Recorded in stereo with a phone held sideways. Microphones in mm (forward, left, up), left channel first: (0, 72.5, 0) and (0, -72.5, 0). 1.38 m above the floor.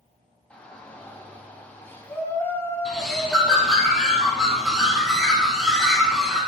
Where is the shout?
10° left (ahead or behind), 7.5 m; by 3.9 s 20° left (ahead or behind), 8 m.